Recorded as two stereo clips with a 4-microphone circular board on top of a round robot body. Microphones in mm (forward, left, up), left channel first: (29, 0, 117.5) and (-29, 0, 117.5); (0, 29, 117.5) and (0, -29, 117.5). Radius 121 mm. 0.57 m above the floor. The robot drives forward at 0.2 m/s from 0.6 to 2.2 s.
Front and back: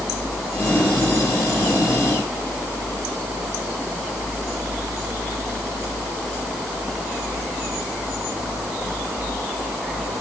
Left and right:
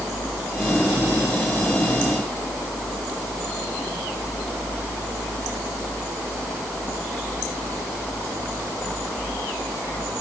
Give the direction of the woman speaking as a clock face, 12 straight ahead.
I don't hear a woman speaking.